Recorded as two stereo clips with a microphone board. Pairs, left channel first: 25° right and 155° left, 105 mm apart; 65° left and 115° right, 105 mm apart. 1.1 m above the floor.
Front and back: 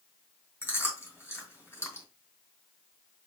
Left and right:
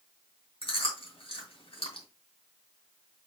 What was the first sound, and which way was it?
Chewing, 40° left.